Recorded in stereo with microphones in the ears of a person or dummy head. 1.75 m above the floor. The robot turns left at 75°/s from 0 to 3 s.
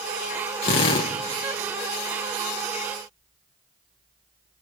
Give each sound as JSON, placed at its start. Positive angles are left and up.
{"t": 0.6, "sound": "a drill", "azimuth_deg": 90, "distance_m": 0.9}